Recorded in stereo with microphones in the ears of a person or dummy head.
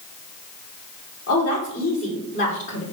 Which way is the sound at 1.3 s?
65° left (ahead or behind).